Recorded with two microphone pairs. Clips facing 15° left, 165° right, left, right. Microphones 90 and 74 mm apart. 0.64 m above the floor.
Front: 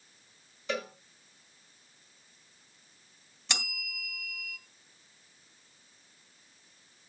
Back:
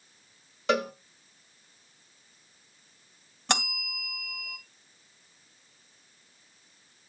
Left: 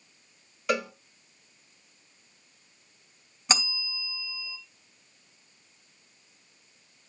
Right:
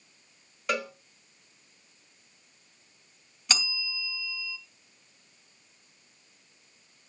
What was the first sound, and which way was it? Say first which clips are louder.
A cowbell: back 8 dB, left 2 dB; straight behind.